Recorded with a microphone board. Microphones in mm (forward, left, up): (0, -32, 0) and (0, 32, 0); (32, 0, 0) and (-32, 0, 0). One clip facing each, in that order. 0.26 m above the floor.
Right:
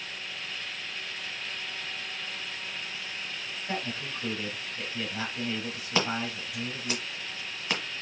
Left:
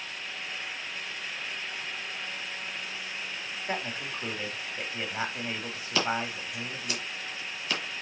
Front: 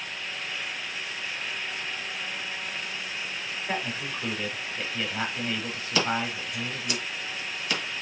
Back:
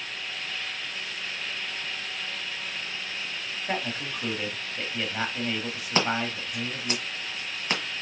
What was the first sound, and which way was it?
A man speaking, 115° left.